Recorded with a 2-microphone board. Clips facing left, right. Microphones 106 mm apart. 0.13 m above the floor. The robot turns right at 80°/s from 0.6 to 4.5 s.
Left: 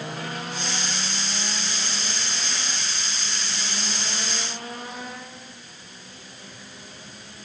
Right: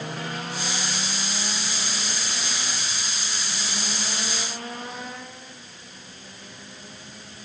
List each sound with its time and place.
Only background noise.